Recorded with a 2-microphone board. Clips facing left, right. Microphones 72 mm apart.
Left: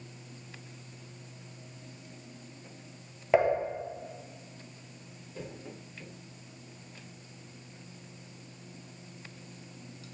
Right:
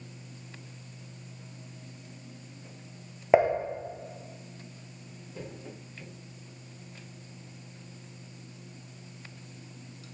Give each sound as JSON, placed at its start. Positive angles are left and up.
{"t": 3.3, "sound": "dishes clattering", "side_deg": -20, "distance_m": 1.4}